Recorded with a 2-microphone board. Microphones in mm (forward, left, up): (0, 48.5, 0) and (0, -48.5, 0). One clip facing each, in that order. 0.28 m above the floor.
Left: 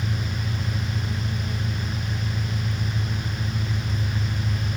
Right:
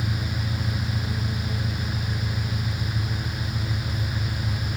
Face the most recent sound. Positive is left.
turn(degrees=-10)  # may be behind; listen again after turning